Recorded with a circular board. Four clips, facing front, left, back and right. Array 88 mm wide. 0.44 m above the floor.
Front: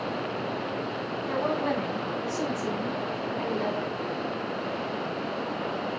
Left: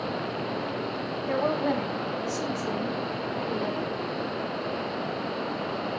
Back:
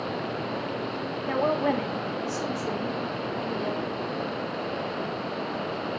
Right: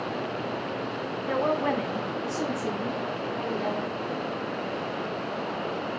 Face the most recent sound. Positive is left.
turn(degrees=-30)